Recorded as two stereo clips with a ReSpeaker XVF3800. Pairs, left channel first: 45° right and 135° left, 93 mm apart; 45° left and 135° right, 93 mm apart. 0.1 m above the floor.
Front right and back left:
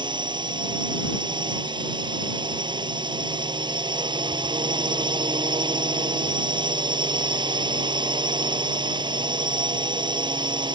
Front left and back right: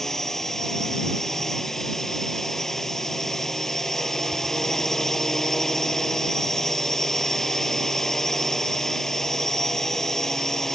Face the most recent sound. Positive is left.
turn(degrees=130)